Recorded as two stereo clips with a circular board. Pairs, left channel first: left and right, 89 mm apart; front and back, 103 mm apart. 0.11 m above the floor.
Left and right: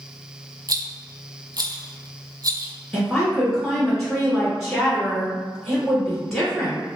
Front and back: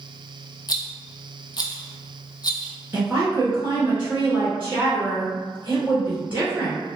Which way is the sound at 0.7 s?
45° right.